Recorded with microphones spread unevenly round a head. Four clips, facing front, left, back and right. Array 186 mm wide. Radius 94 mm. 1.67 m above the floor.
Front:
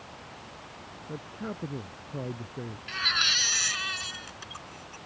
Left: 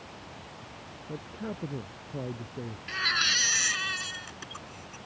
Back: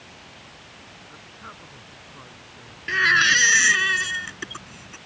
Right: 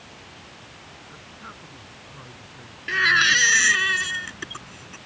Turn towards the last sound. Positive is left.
turn(degrees=-140)